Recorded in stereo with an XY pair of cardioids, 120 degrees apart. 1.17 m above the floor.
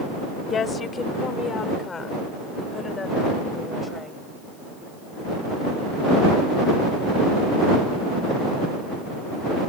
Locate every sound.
0.5 s a woman speaking: 40° left; by 4.2 s 25° left